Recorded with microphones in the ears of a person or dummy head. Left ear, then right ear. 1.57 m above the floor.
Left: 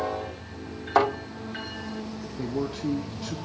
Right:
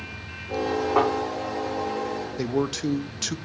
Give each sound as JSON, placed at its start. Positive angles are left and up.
{"t": 0.9, "sound": "a thud", "side_deg": 70, "distance_m": 4.0}
{"t": 2.4, "sound": "a man speaking", "side_deg": -80, "distance_m": 0.8}